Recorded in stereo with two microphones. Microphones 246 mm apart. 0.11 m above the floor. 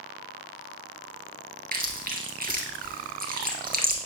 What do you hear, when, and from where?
1.7 s chewing: 35° right (ahead or behind), 1.1 m